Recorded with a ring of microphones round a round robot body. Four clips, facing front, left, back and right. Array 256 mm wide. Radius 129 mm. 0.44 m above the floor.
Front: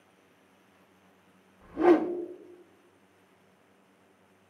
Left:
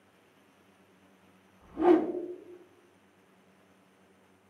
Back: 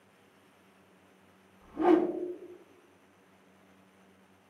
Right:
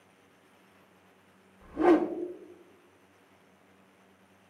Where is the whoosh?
35° right, 0.9 m.